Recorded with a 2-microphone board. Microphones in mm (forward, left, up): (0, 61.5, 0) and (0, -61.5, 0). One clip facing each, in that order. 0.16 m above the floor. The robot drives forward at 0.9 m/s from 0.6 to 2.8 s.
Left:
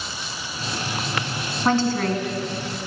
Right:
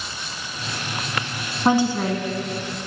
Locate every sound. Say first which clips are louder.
1.6 s a woman speaking: right 2 dB; 15° right (ahead or behind), 1.0 m